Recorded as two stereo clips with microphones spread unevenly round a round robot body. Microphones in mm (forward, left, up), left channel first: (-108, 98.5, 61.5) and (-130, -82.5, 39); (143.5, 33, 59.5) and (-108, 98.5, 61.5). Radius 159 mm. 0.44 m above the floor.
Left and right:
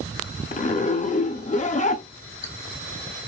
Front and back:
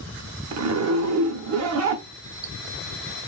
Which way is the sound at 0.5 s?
140° left.